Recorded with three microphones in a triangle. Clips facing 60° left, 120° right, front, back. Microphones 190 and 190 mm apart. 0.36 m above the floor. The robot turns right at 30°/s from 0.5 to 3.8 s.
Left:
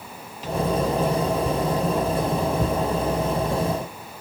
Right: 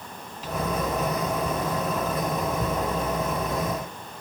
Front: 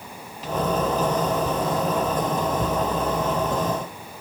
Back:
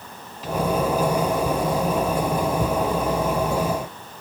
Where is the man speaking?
I don't hear a man speaking.